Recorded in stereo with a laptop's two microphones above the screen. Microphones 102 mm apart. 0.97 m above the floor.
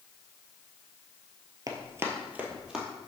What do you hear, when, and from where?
1.7 s running footsteps: 35° right (ahead or behind), 1.1 m; by 2.9 s 5° right (ahead or behind), 1.6 m